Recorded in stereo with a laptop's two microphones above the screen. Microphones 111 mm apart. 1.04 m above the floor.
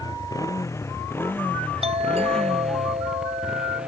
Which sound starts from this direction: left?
A motorcycle, at 0.0 s.